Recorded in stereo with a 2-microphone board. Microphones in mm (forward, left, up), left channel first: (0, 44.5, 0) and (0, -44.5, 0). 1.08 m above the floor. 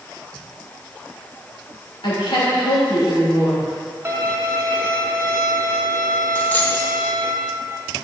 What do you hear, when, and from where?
2.0 s a woman speaking: 80° left, 3 m
4.0 s a violin: 25° right (ahead or behind), 0.8 m
6.3 s a dropped coin: 20° left (ahead or behind), 0.8 m